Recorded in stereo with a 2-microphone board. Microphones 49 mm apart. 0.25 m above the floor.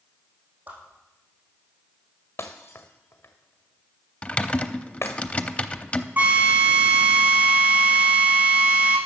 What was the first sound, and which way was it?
A whoosh, 35° right (ahead or behind).